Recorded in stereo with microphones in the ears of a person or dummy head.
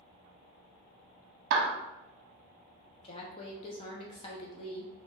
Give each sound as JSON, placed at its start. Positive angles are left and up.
{"t": 1.5, "sound": "a clap", "side_deg": -60, "distance_m": 0.7}
{"t": 3.0, "sound": "a woman speaking", "side_deg": 35, "distance_m": 0.9}